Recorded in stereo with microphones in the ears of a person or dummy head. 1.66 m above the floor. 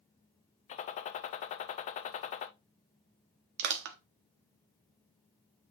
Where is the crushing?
60° right (ahead or behind), 1.1 m.